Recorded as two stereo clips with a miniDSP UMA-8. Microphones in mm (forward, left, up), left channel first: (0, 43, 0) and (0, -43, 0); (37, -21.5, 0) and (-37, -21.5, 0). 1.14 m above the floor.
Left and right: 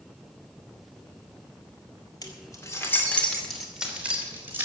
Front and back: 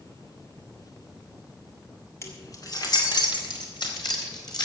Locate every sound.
2.2 s keys jangling: 50° left, 2.5 m; by 4.7 s 25° right, 3.5 m